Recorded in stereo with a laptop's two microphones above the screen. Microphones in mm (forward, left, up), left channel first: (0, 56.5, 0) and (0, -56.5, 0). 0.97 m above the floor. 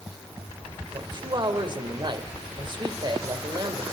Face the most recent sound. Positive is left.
turn(degrees=-40)  # may be behind; listen again after turning